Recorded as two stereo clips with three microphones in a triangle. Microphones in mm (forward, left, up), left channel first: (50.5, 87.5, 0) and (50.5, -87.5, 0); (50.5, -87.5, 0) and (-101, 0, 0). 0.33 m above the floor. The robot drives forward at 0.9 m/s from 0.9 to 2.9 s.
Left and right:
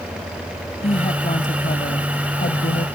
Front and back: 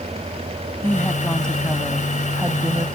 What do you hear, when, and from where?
0.8 s a woman speaking: 45° left; by 2.9 s 85° left